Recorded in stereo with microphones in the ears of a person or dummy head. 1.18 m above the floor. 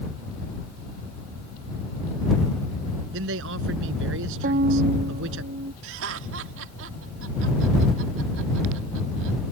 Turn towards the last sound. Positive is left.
turn(degrees=-70)  # may be behind; listen again after turning